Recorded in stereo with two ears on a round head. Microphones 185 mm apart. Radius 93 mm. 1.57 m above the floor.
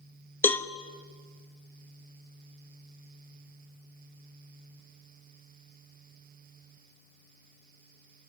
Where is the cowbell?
10° left (ahead or behind), 1.1 m.